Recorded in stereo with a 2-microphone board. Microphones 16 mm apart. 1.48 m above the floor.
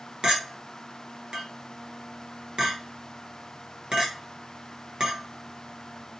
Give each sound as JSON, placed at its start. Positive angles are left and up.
{"t": 0.2, "sound": "a clink", "side_deg": -55, "distance_m": 0.9}